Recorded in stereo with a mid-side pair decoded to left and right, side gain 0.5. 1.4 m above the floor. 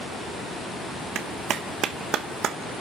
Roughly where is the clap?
Ahead right.